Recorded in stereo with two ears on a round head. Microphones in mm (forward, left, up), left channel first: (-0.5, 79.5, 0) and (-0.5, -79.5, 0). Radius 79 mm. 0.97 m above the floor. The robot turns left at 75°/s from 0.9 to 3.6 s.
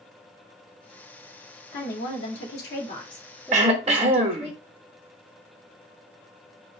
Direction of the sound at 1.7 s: 130° left.